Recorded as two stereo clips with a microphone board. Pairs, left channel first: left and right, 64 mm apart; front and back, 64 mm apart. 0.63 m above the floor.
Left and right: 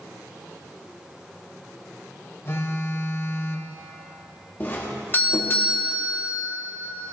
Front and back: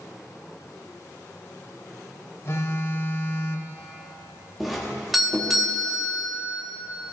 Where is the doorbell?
90° left, 1.4 m.